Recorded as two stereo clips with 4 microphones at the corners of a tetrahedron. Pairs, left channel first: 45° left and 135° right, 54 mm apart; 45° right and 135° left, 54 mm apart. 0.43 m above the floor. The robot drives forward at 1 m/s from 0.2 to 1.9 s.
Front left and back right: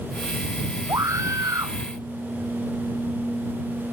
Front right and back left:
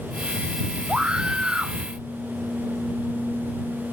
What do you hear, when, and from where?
0.9 s a scream: 150° right